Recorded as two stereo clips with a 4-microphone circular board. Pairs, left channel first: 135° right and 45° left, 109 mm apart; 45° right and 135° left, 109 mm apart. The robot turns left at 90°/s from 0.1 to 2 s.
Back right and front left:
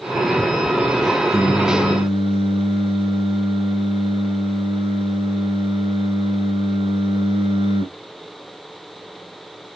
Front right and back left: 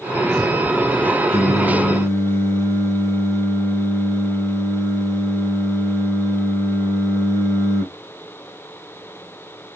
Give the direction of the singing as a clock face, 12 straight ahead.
9 o'clock.